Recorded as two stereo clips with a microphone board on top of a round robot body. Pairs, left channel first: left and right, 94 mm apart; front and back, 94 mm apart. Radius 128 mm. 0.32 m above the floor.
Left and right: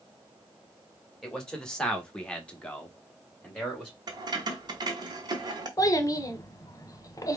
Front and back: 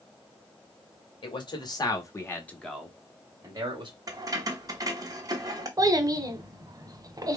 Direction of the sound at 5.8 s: 140° left.